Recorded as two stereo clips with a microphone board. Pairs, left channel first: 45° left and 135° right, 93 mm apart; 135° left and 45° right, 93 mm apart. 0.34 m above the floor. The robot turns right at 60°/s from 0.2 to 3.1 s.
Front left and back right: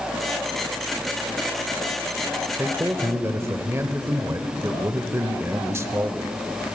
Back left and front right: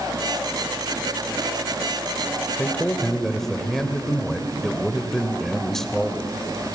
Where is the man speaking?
170° right, 1.4 m; by 6.3 s 140° right, 1.4 m.